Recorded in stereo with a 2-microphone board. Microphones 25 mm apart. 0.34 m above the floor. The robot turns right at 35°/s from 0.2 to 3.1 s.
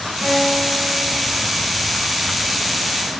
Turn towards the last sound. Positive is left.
turn(degrees=50)